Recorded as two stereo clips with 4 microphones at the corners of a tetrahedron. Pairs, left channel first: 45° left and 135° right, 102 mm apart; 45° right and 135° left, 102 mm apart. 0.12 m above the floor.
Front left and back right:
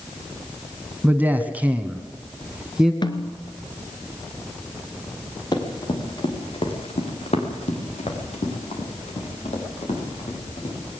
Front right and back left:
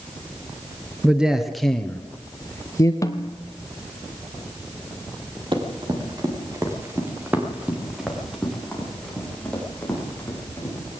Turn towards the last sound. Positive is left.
turn(degrees=25)